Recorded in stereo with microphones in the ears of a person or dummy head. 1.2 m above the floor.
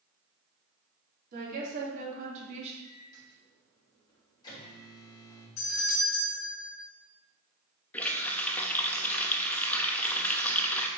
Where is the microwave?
25° left (ahead or behind), 3.5 m.